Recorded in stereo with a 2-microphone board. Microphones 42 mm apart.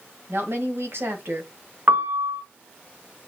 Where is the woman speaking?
65° right (ahead or behind), 1.8 m.